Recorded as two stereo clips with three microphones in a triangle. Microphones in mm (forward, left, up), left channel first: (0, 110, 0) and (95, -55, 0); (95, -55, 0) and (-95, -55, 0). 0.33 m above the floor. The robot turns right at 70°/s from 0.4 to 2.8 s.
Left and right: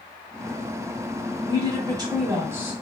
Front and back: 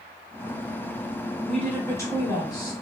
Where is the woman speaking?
80° right, 1.1 m; by 2.7 s 5° left, 1.1 m.